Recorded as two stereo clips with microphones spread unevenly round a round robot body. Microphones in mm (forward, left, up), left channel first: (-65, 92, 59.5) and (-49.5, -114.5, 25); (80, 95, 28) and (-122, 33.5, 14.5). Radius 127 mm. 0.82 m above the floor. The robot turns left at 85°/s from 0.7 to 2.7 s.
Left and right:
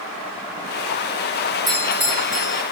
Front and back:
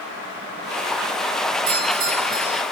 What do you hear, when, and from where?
1.7 s a doorbell: 150° right, 3 m; by 2.6 s 130° left, 3 m